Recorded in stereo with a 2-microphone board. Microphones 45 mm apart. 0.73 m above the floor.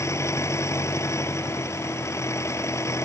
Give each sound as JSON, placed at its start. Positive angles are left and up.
{"t": 0.0, "sound": "an engine running", "side_deg": 80}